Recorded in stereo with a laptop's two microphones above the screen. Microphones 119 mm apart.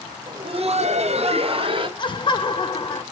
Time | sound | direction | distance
0.3 | laughter | 30° right (ahead or behind) | 0.7 m
2.0 | laughter | 40° left (ahead or behind) | 0.5 m